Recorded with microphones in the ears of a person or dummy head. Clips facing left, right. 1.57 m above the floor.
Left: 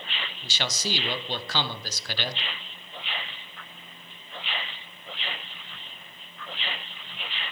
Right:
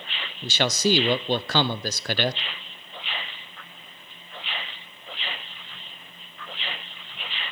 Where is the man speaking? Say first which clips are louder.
Right 10 dB; 50° right (ahead or behind), 0.6 m.